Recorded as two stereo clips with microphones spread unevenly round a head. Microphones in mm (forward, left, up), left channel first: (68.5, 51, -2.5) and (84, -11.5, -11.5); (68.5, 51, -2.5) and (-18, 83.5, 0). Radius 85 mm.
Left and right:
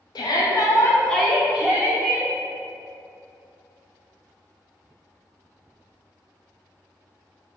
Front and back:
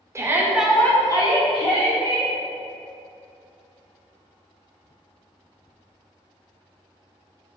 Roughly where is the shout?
Left.